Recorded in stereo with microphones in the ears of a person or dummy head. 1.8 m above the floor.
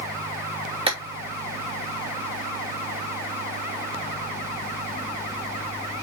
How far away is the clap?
About 2.5 m.